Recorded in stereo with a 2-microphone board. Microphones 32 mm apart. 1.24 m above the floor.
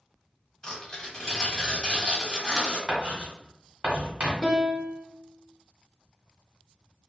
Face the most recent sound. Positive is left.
turn(degrees=-25)  # may be behind; listen again after turning